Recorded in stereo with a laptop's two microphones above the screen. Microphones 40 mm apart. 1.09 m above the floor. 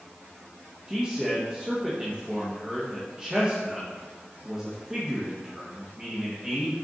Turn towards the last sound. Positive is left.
turn(degrees=-20)  # may be behind; listen again after turning